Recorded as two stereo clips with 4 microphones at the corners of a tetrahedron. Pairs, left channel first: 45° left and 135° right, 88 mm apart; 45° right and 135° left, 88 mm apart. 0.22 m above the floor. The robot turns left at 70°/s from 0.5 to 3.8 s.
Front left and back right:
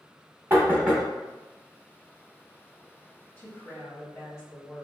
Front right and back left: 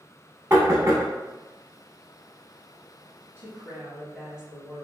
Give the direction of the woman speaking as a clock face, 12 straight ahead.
9 o'clock.